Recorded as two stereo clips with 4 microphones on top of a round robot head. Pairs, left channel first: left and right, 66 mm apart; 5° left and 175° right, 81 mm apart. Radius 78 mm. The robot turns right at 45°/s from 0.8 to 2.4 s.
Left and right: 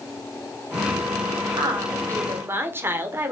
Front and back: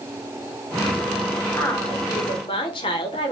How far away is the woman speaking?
About 0.7 m.